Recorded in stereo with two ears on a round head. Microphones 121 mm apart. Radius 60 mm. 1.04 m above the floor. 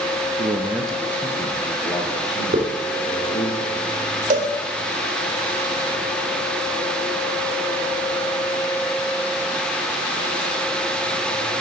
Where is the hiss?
55° right (ahead or behind), 2.5 m.